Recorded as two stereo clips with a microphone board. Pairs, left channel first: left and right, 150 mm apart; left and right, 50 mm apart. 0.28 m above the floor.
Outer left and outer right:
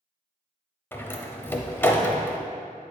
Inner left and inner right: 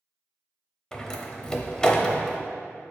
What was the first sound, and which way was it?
A door slam, 15° left (ahead or behind).